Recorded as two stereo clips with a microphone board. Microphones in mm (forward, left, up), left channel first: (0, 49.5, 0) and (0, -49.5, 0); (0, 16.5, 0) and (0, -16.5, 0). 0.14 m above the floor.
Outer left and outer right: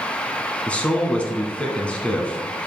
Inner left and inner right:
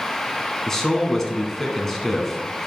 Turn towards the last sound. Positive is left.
turn(degrees=10)  # may be behind; listen again after turning